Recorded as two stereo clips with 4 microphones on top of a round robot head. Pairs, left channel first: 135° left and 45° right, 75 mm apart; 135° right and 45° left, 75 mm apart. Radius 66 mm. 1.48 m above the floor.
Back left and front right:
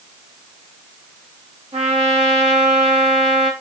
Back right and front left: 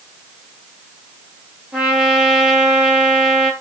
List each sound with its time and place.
1.7 s a trumpet: 35° right, 1.1 m